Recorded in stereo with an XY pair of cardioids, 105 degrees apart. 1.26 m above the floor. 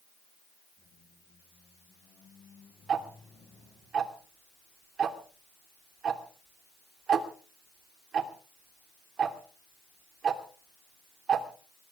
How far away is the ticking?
About 3 m.